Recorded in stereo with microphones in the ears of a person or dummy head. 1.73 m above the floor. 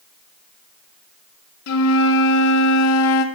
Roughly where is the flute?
Left.